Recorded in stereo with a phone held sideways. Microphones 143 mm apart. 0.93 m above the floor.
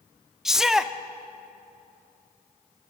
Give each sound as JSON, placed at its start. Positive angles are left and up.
{"t": 0.5, "sound": "a shout", "side_deg": -5, "distance_m": 0.8}